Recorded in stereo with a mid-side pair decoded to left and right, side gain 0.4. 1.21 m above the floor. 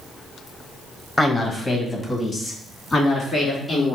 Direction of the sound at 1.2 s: 20° left.